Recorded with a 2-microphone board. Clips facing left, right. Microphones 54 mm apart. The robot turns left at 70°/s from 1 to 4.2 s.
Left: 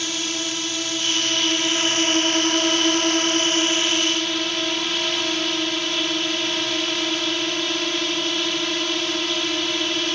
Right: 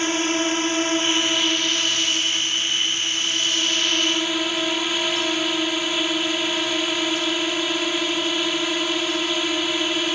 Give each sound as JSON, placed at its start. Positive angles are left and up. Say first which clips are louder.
{"t": 0.0, "sound": "a drone", "louder": "right 6 dB", "azimuth_deg": -145}